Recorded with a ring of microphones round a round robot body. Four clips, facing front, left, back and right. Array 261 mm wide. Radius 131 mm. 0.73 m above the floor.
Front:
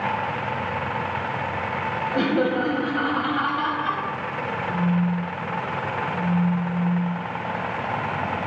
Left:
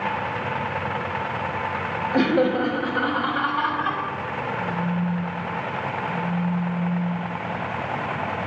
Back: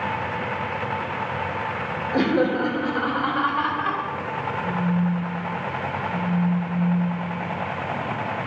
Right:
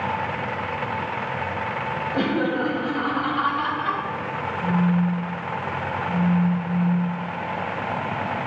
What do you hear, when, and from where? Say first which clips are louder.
2.1 s laughter: left 4 dB, back 2 dB; 135° left, 2.5 m; by 4.0 s 150° left, 4 m
4.6 s a phone buzzing: right 7 dB, front 1 dB; 155° left, 2.5 m